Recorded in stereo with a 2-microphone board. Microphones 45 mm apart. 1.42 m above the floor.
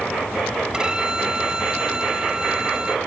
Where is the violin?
20° right (ahead or behind).